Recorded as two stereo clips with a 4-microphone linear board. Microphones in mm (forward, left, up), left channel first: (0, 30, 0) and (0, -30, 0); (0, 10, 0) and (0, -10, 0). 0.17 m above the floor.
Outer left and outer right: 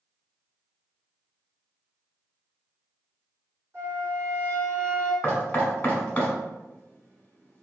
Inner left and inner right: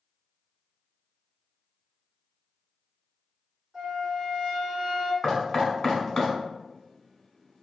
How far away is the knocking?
About 0.8 m.